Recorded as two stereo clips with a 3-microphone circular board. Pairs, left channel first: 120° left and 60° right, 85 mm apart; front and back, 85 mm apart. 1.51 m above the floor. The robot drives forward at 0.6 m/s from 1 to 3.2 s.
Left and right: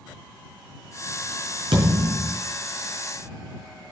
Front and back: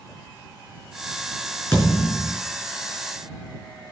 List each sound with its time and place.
1.7 s a thud: 70° right, 5 m; by 2.4 s 75° right, 5 m